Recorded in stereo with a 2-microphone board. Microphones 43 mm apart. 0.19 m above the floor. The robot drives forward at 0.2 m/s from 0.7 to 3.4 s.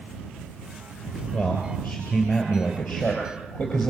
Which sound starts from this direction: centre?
A man speaking, at 1.3 s.